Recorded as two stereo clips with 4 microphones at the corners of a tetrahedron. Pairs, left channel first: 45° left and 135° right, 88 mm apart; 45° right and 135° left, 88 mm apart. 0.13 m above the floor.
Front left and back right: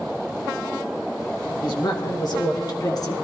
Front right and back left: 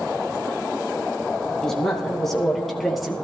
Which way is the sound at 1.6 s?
40° left.